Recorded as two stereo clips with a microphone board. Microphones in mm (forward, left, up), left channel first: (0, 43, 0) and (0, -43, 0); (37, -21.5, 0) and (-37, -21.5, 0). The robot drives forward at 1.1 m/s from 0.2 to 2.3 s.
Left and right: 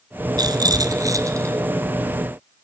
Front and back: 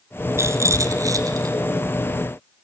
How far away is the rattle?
About 2.5 m.